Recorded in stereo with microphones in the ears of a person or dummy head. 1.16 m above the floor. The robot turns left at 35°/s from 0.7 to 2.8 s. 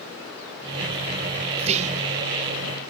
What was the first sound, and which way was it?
Whispering, 35° right (ahead or behind).